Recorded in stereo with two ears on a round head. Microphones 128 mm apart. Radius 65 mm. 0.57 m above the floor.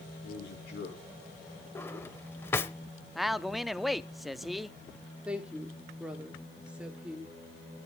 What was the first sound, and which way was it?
A man speaking, 85° left.